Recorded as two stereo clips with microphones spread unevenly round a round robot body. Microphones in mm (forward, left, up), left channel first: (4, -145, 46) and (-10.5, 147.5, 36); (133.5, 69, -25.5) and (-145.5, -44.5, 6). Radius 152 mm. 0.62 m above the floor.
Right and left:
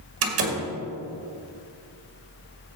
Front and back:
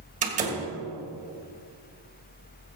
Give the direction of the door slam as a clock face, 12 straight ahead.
8 o'clock.